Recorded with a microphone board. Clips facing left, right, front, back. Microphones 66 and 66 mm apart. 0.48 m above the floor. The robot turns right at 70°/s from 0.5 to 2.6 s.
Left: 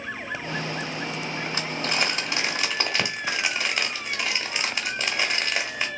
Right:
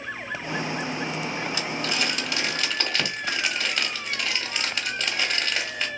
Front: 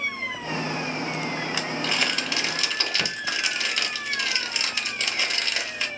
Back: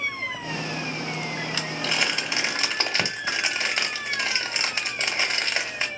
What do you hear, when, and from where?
1.5 s crumpling: 70° left, 1.3 m; by 5.9 s 145° left, 1.3 m